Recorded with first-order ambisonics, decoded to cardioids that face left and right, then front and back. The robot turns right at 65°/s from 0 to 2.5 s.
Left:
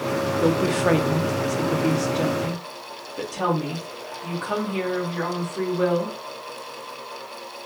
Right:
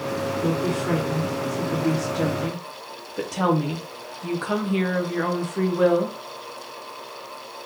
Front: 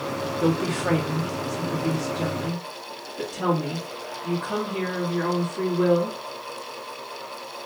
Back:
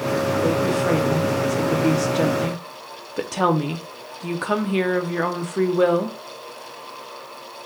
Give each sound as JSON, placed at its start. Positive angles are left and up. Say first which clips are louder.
{"t": 0.4, "sound": "a woman speaking", "louder": "left 7 dB, even", "azimuth_deg": 55, "distance_m": 0.7}